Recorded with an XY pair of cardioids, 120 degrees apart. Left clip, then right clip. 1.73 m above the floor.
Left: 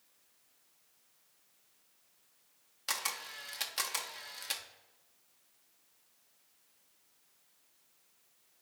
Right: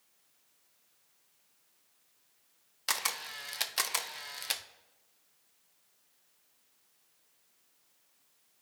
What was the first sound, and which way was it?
A camera shutter, 30° right.